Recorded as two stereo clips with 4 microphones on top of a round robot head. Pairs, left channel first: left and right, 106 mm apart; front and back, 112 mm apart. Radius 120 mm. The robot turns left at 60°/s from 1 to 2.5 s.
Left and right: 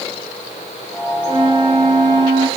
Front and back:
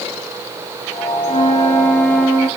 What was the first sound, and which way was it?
A flute, 40° right.